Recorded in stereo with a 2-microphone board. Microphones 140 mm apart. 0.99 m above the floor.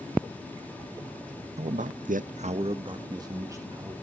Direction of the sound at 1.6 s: 50° right (ahead or behind).